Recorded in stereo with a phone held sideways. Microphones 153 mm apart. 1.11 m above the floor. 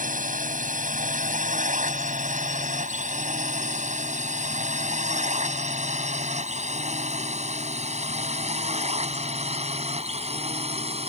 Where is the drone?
60° right (ahead or behind); by 11.1 s 40° right (ahead or behind).